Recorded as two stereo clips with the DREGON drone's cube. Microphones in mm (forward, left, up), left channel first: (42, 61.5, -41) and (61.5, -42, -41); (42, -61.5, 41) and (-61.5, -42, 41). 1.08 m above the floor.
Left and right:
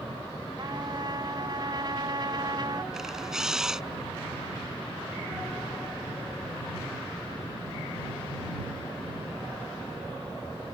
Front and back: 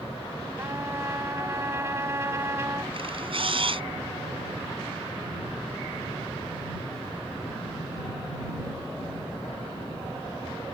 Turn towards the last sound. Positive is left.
turn(degrees=-165)